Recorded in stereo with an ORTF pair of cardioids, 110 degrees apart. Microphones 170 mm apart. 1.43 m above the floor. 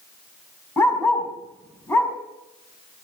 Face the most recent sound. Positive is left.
turn(degrees=15)